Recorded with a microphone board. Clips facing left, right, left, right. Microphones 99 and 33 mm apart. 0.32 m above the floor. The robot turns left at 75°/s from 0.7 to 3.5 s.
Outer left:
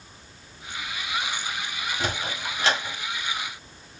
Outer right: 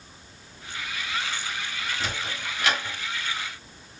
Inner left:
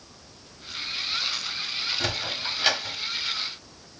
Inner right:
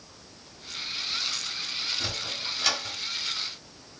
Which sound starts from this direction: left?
A sliding door, at 2.0 s.